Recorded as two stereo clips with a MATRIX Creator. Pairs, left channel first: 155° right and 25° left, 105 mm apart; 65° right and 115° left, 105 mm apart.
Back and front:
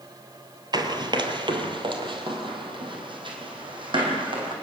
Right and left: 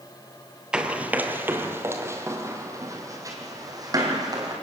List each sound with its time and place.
0.7 s running footsteps: 35° left, 1.9 m; by 4.5 s 60° left, 5 m